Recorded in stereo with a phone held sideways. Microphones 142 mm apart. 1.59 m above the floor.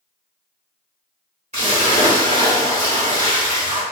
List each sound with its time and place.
1.5 s a splash: 50° right (ahead or behind), 2.0 m